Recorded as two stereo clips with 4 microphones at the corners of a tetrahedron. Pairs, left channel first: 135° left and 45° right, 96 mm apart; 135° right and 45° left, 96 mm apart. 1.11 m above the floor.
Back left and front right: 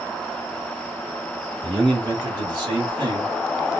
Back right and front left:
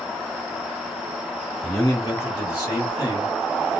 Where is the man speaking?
80° right, 2.5 m; by 3.8 s 100° right, 0.9 m.